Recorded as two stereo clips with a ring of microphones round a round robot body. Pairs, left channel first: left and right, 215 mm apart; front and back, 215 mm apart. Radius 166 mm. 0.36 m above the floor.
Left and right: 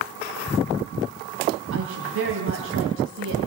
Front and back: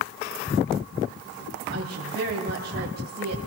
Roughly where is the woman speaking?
Behind right.